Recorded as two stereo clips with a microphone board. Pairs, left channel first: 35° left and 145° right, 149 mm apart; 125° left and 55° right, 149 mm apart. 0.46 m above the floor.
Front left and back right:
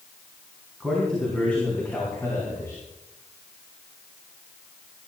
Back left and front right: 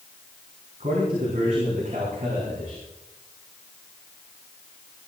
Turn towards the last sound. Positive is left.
turn(degrees=-30)